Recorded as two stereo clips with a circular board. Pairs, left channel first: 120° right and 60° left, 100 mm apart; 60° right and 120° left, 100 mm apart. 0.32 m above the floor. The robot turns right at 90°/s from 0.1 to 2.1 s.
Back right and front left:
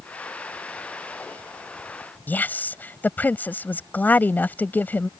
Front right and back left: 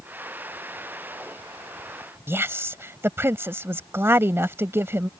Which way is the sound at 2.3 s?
175° left.